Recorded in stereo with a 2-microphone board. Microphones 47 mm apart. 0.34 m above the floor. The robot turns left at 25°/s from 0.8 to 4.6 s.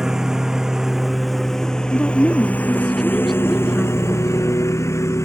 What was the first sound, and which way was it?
A lawn mower, 165° right.